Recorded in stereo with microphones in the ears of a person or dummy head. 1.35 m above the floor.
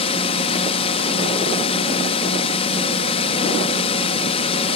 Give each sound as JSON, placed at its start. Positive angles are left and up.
{"t": 0.0, "sound": "a drone", "side_deg": 30}